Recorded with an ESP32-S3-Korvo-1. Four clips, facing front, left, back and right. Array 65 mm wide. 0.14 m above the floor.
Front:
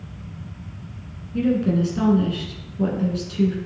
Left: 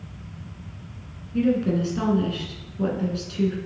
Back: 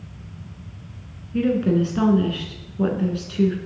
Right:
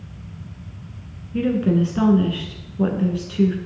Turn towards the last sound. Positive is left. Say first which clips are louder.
# right 2 dB, back 1 dB
turn(degrees=-135)